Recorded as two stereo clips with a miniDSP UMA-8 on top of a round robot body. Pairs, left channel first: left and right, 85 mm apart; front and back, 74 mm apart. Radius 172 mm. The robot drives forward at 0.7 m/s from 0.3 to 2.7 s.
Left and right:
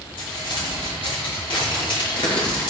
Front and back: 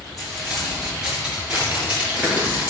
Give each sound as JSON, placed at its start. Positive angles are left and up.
{"t": 0.2, "sound": "crumpling", "azimuth_deg": 90, "distance_m": 4.5}